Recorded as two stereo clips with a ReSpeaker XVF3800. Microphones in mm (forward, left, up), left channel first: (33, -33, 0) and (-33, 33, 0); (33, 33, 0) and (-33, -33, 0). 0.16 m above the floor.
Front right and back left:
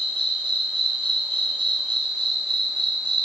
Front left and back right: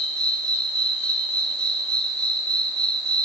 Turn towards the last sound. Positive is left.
turn(degrees=125)